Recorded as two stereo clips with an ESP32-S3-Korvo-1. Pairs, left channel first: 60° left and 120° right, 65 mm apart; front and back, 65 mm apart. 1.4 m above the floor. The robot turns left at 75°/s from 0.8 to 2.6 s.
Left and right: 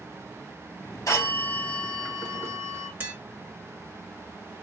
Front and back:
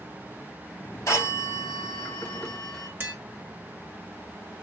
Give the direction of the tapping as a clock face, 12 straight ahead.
5 o'clock.